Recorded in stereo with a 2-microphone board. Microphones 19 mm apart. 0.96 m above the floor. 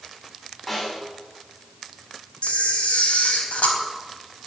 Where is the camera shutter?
80° left, 3.5 m.